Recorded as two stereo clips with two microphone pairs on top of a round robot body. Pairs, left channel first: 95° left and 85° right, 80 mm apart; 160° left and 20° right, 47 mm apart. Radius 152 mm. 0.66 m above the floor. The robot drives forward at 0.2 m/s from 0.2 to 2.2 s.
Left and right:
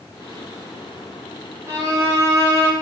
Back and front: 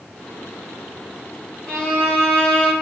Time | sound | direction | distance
1.7 | a violin | 140° right | 1.4 m